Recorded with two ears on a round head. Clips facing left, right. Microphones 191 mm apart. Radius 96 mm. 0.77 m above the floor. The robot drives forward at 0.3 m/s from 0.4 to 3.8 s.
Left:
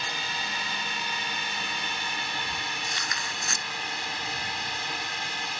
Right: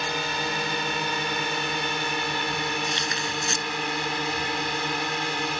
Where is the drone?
45° right (ahead or behind); by 5.6 s 55° right (ahead or behind).